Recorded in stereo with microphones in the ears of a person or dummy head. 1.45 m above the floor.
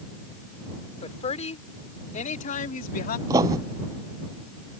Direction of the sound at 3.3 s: 25° right (ahead or behind).